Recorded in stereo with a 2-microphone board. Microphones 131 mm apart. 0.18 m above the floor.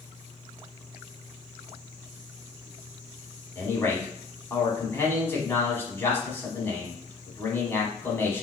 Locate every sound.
3.5 s a man speaking: 20° left (ahead or behind), 1.0 m